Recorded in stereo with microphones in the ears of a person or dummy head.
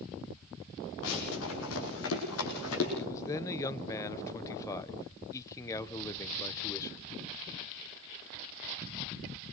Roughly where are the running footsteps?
Left.